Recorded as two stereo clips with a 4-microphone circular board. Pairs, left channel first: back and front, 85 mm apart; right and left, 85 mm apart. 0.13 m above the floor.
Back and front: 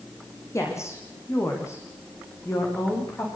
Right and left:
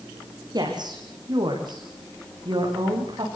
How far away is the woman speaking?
About 8 m.